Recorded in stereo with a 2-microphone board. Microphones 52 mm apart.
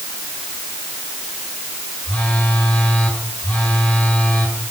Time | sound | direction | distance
2.0 | a phone buzzing | 25° left (ahead or behind) | 6 m